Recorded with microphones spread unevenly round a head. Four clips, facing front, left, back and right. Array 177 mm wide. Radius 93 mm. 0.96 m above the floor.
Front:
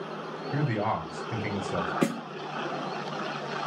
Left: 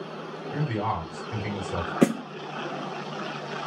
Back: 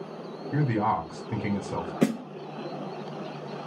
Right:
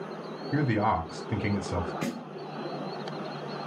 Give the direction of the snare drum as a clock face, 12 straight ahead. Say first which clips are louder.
Left 11 dB, back 5 dB; 9 o'clock.